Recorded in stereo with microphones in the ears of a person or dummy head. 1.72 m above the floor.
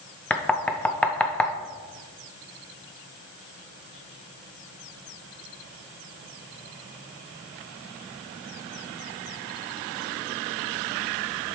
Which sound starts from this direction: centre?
Knocking, at 0.3 s.